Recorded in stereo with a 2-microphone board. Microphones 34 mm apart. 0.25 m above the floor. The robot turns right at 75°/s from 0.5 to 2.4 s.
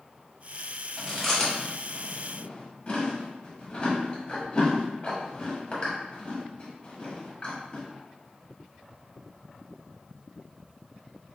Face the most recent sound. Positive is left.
turn(degrees=35)  # may be behind; listen again after turning